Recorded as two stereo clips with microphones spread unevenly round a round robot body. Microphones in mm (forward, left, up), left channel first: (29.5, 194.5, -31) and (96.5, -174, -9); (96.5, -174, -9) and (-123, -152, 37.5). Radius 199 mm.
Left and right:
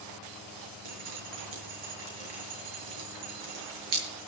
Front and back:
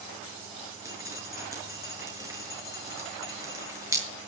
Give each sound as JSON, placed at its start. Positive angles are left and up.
{"t": 0.8, "sound": "dripping", "azimuth_deg": -110, "distance_m": 6.5}